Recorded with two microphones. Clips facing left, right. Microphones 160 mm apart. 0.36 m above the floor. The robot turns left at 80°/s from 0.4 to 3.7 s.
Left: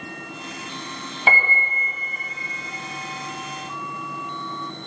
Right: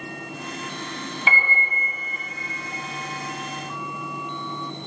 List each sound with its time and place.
1.3 s a piano: 130° left, 1.1 m; by 1.9 s 80° left, 1.1 m